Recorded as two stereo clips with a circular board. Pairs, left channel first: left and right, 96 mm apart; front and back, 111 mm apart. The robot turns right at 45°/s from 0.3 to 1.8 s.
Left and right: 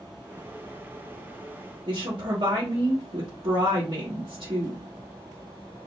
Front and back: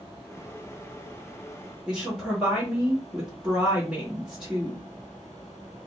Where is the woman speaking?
100° right, 1.5 m.